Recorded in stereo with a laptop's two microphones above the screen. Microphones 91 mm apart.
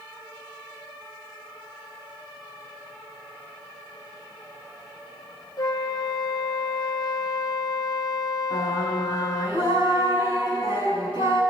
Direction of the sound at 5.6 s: 45° left (ahead or behind).